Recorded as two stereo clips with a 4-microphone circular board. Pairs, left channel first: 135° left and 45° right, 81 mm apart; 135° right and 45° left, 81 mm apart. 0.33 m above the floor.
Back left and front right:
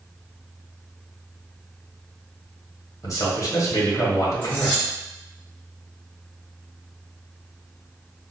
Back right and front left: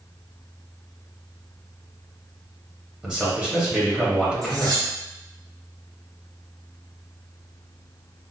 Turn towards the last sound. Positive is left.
turn(degrees=65)